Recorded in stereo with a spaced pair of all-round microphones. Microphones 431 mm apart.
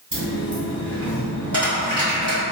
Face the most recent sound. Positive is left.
turn(degrees=-45)  # may be behind; listen again after turning